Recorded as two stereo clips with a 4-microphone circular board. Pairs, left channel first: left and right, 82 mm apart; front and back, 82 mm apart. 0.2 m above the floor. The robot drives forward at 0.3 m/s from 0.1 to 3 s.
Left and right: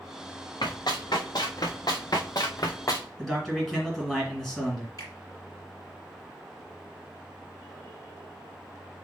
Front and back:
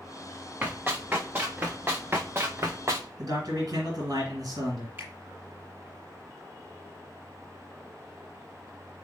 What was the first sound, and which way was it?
Running footsteps, 110° left.